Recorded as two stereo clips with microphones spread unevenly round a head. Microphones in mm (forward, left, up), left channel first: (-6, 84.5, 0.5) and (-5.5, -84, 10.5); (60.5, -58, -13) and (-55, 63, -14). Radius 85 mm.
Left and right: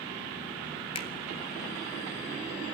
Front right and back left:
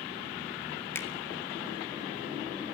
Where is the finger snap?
30° left, 1.8 m.